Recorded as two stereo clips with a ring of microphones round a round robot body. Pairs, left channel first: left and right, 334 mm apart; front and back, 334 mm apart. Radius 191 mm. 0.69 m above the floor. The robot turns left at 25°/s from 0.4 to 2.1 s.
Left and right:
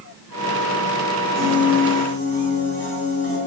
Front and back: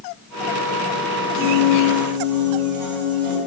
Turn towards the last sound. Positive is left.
turn(degrees=-145)